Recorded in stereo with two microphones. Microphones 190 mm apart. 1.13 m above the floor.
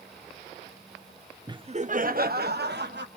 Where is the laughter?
20° right (ahead or behind), 0.8 m; by 3.1 s 65° right (ahead or behind), 2 m.